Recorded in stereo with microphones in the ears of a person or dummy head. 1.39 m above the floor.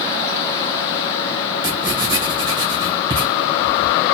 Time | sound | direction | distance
1.6 | writing | 30° right (ahead or behind) | 2 m